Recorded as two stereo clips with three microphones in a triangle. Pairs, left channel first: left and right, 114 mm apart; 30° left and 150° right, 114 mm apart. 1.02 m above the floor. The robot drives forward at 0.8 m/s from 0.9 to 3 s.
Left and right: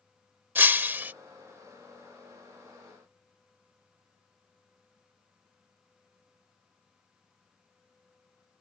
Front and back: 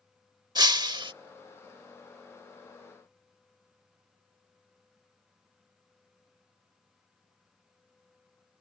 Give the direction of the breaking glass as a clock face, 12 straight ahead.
5 o'clock.